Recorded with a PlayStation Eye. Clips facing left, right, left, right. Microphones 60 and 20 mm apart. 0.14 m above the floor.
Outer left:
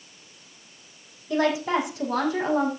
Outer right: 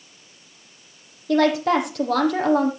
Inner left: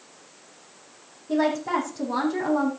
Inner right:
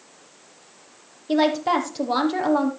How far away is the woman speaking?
About 5 m.